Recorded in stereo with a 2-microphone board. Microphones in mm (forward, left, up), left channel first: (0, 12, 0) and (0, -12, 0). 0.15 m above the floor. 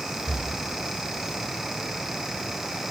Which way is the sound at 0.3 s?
40° right (ahead or behind).